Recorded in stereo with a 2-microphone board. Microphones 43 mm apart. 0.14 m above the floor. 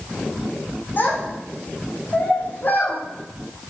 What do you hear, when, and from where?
1.0 s a child speaking: 50° left (ahead or behind), 4 m